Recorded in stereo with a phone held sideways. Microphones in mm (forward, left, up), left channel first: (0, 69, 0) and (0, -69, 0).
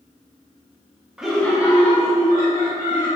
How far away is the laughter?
About 1.3 m.